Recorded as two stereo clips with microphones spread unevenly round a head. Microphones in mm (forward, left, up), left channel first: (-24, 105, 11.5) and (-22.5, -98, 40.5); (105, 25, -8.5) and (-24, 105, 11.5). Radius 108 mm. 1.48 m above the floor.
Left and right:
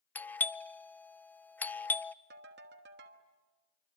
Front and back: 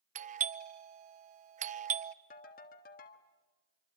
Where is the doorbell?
155° left, 0.5 m.